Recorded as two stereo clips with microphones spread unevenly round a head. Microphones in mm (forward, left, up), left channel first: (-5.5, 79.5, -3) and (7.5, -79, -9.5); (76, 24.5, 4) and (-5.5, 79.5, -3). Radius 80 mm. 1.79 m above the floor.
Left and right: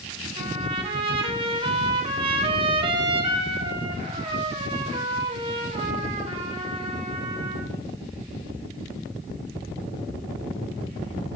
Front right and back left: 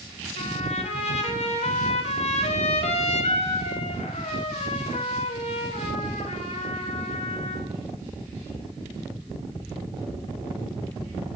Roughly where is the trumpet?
Ahead right.